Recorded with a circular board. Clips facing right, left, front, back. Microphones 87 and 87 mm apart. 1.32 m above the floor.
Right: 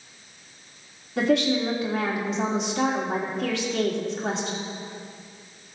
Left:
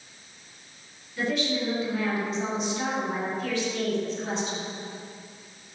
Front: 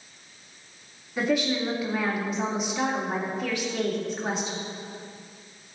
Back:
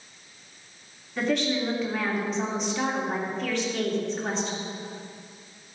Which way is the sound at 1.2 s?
80° right.